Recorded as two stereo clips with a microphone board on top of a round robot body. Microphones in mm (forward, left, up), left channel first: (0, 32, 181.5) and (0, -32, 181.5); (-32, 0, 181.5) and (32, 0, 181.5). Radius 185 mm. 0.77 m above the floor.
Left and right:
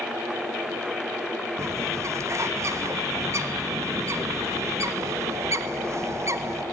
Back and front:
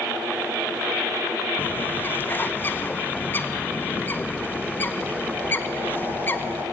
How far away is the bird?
About 1.4 m.